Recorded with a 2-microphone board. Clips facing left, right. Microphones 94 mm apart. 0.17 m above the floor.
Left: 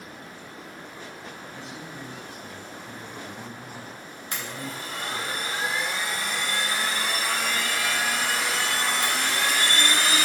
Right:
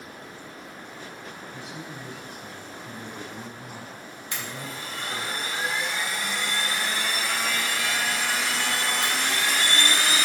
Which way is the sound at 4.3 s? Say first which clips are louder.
Left 1 dB; 45° left (ahead or behind).